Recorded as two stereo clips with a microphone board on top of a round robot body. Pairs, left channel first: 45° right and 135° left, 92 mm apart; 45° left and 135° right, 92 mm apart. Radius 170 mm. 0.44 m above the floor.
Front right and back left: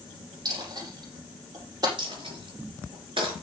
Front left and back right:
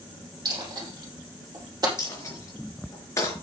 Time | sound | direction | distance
0.5 | a dropped coin | straight behind | 5 m
2.0 | a dropped coin | 105° left | 5 m